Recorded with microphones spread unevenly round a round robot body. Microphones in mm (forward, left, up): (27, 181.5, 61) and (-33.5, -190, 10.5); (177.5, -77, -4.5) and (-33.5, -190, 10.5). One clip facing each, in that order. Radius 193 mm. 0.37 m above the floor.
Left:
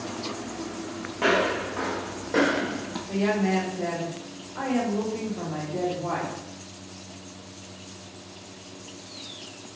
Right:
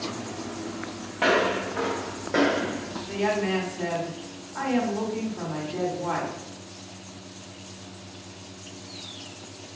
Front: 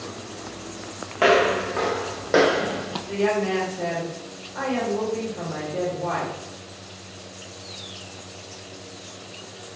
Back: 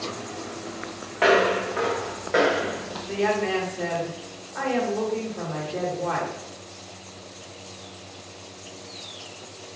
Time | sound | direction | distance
1.2 | footsteps | 20° right | 1.6 m
3.1 | a woman speaking | 80° right | 1.5 m